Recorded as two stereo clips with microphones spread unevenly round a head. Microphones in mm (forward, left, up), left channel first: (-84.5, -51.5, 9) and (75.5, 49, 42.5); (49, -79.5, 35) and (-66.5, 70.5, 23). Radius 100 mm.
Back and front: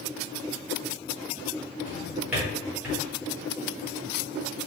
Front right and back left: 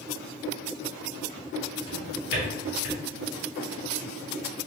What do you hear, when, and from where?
1.9 s a drawer: 40° right, 2.0 m